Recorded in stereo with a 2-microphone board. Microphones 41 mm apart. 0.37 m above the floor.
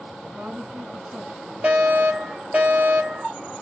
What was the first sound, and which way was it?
A woman speaking, 40° right (ahead or behind).